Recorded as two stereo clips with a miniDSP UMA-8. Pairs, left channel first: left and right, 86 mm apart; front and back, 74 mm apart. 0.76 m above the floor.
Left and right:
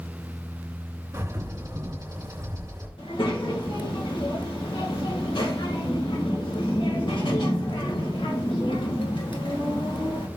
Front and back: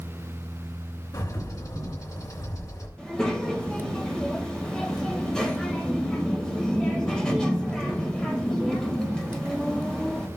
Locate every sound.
1.1 s a bird: 35° right, 2.5 m
3.0 s a child speaking: 80° left, 1.9 m